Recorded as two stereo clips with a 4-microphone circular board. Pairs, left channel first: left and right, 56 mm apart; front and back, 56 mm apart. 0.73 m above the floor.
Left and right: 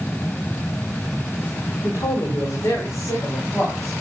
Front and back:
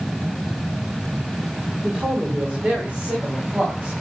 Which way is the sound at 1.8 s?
105° left.